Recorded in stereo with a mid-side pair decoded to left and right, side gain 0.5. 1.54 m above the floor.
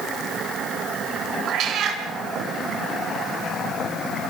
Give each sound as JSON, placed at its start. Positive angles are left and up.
{"t": 1.5, "sound": "a cat meowing", "azimuth_deg": -65, "distance_m": 4.5}